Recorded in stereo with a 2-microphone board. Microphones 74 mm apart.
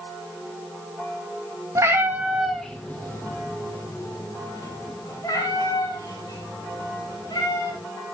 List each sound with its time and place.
1.8 s a cat meowing: 40° right (ahead or behind), 1.5 m; by 7.8 s 65° left (ahead or behind), 7 m